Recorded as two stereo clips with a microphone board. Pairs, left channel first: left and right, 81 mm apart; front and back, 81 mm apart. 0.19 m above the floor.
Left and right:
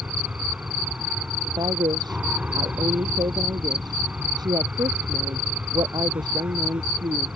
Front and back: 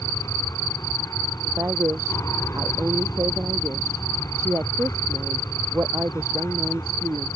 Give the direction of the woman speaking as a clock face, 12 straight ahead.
4 o'clock.